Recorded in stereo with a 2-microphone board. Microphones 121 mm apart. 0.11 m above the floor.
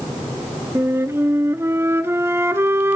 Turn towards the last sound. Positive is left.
turn(degrees=-20)  # may be behind; listen again after turning